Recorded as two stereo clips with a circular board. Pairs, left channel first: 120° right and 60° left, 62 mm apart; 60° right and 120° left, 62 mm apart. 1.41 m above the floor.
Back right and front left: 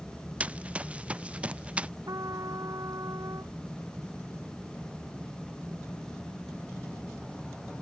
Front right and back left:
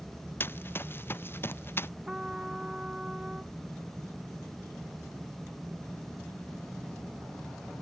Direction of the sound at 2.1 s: 40° left.